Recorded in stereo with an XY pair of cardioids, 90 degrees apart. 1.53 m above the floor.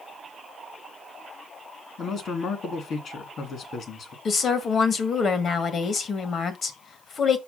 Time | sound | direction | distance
2.0 | a man speaking | 65° left | 2.5 m
4.2 | a woman speaking | 55° left | 1.6 m